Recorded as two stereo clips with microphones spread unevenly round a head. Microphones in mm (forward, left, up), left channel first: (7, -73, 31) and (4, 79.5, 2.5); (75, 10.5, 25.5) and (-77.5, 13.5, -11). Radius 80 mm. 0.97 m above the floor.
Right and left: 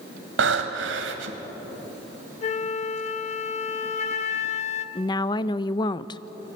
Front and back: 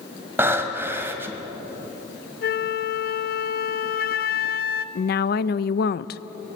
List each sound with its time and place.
0.4 s breathing: 100° left, 2 m
2.4 s a flute: 40° right, 1.0 m
5.0 s a woman speaking: 25° right, 0.6 m